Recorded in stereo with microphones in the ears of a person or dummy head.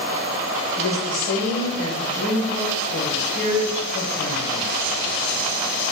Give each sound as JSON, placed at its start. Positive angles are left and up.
{"t": 0.8, "sound": "a woman speaking", "side_deg": 65, "distance_m": 1.8}